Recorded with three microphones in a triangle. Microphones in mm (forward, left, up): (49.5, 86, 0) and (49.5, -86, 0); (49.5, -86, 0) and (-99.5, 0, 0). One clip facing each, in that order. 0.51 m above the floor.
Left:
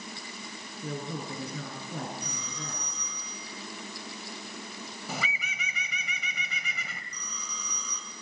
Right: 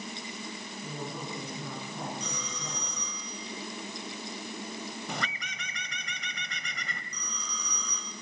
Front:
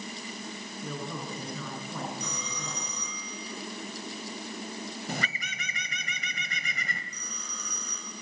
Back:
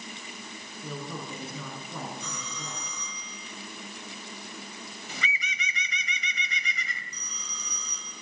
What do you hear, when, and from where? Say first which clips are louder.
0.8 s a woman speaking: left 4 dB, even; 65° left, 7 m
2.2 s a phone ringing: right 1 dB, front 2 dB; 105° right, 9 m
5.1 s a bird: even, front 1 dB; 5° left, 1.7 m
7.1 s a phone ringing: right 2 dB, front 3 dB; 5° left, 4 m